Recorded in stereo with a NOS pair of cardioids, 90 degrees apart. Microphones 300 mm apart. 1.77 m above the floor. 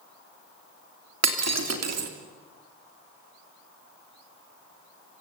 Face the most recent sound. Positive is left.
turn(degrees=-60)